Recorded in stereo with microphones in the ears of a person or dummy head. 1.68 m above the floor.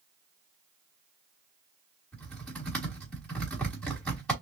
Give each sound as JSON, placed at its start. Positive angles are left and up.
{"t": 2.1, "sound": "typing on a keyboard", "side_deg": 5, "distance_m": 1.4}